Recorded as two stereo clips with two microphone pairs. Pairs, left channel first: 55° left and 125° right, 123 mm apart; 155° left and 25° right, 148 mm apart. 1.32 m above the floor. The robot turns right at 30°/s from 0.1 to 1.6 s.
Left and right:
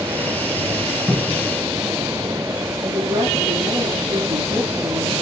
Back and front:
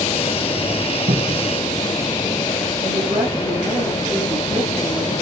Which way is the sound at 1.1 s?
45° right.